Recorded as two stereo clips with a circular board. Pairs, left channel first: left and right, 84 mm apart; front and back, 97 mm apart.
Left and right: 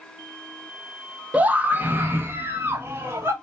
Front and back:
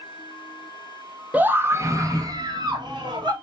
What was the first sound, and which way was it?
A scream, 130° right.